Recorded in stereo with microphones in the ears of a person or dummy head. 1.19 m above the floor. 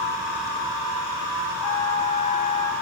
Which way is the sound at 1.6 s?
30° left (ahead or behind).